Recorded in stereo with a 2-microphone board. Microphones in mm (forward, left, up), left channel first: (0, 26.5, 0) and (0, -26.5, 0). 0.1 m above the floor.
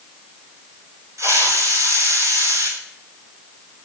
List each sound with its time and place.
1.2 s a hiss: 65° right (ahead or behind), 7 m